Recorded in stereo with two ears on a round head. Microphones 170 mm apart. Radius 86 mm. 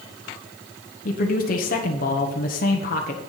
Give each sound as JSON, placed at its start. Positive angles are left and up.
{"t": 1.1, "sound": "a man speaking", "side_deg": 45, "distance_m": 1.1}